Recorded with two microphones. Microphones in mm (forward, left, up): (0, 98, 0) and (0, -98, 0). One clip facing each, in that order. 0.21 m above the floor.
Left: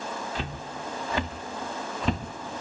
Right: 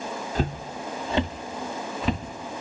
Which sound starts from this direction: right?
Footsteps, at 0.3 s.